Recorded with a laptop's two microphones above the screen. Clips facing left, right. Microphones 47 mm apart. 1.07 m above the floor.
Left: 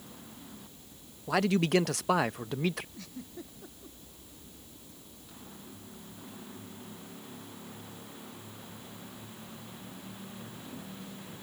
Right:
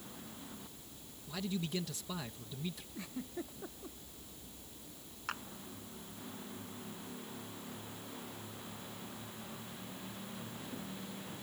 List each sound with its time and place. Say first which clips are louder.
1.3 s a man speaking: left 13 dB; 80° left
3.0 s a giggle: right 2 dB; 20° right (ahead or behind)
5.3 s a clap: right 14 dB; 85° right